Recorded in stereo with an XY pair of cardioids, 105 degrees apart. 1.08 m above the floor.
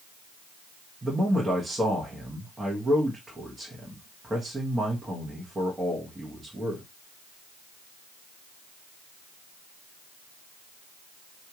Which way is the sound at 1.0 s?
20° right.